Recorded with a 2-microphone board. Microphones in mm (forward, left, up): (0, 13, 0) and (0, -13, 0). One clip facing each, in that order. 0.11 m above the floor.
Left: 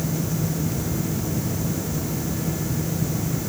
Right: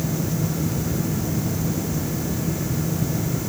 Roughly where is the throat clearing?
No throat clearing in this recording.